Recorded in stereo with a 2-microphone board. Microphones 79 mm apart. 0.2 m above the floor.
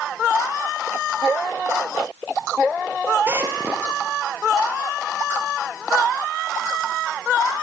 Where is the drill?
30° right (ahead or behind), 3 m.